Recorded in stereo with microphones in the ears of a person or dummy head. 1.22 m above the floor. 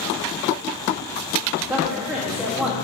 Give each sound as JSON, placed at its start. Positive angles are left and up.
{"t": 1.6, "sound": "a woman speaking", "side_deg": -5, "distance_m": 2.5}